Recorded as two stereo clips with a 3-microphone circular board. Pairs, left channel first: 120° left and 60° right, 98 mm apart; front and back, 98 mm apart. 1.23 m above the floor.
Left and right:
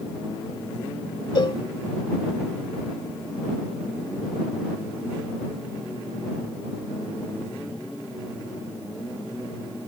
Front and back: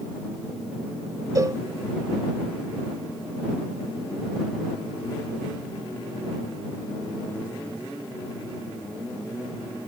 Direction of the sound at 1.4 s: 135° left.